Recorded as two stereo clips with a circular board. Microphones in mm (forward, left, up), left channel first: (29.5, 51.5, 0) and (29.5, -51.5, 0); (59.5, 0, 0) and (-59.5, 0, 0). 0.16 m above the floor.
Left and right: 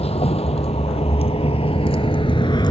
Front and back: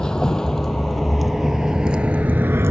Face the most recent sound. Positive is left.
turn(degrees=120)